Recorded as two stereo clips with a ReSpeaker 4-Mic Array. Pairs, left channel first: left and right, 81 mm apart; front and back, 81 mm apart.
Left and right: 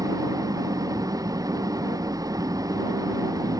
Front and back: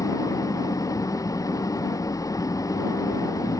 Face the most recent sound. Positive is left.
turn(degrees=-45)